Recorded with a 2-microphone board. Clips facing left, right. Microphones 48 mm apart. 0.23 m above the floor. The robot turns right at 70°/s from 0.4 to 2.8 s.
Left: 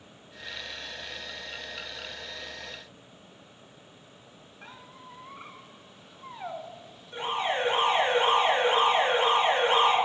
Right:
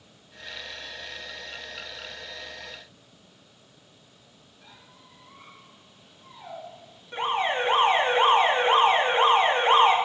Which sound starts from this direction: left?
A squeak, at 4.6 s.